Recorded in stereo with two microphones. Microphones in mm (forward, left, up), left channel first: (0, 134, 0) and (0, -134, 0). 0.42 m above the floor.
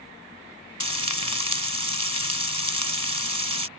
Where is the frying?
85° left.